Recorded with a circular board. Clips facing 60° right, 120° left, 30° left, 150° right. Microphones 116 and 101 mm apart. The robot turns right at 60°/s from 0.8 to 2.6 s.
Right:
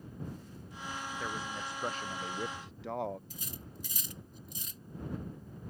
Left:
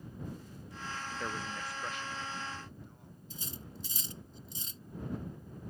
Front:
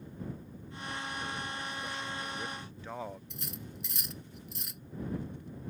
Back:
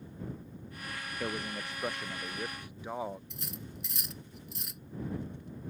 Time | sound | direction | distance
1.2 | a man speaking | 160° right | ?
3.3 | cutlery clinking | 120° left | ?